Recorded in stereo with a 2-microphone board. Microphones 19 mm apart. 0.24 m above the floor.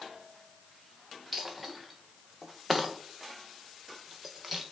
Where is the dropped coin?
Centre (ahead or behind), 1.2 m.